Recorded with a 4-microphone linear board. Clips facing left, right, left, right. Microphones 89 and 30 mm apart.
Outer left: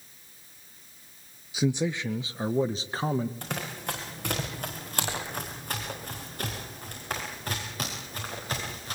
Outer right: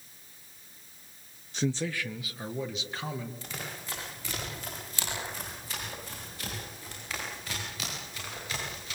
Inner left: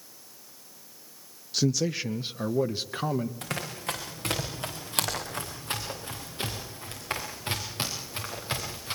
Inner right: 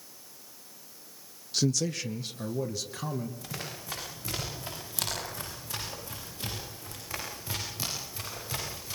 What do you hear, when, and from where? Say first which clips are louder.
1.5 s a man speaking: outer left 4 dB, inner left 2 dB; 5° left (ahead or behind), 0.6 m; by 3.3 s 40° left (ahead or behind), 1.5 m
3.4 s running footsteps: outer left 7 dB, inner left 6 dB; 60° left (ahead or behind), 8 m; by 8.9 s 45° left (ahead or behind), 10 m